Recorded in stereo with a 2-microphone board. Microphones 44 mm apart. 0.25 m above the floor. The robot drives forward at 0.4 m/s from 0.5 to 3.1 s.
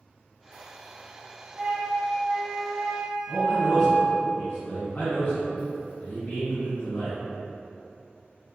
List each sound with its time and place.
1.6 s a flute: 20° right (ahead or behind), 0.7 m; by 4.3 s 15° right (ahead or behind), 0.8 m
3.3 s a man speaking: 40° left (ahead or behind), 1.9 m